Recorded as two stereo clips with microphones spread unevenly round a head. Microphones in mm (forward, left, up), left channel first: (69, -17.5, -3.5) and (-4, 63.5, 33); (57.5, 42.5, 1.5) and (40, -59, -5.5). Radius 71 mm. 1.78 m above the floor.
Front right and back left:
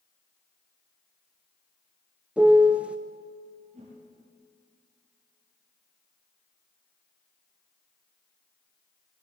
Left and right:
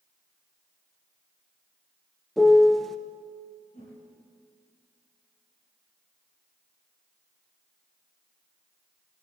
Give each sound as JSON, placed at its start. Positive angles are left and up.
{"t": 2.4, "sound": "a piano", "azimuth_deg": 160, "distance_m": 0.8}
{"t": 3.7, "sound": "a whoosh", "azimuth_deg": 120, "distance_m": 8.0}